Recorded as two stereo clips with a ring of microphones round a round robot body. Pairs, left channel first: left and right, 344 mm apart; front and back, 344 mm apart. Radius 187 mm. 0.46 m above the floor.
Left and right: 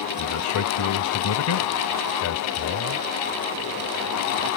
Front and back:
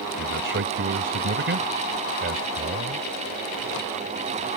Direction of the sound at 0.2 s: 125° left.